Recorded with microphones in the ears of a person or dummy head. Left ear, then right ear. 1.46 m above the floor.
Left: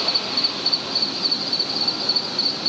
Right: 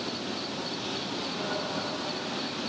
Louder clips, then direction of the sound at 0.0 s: Left 13 dB; 70° left (ahead or behind).